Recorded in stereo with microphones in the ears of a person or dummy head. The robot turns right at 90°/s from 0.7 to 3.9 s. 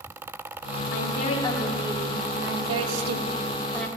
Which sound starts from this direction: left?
A woman speaking, at 0.9 s.